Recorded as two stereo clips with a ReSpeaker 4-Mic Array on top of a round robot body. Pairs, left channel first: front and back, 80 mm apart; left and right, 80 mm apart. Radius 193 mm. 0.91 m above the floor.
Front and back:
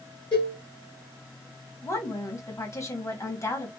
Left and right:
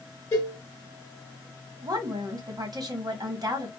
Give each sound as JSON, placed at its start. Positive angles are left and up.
{"t": 0.3, "sound": "a cowbell", "azimuth_deg": 30, "distance_m": 1.1}
{"t": 1.8, "sound": "a woman speaking", "azimuth_deg": -50, "distance_m": 1.6}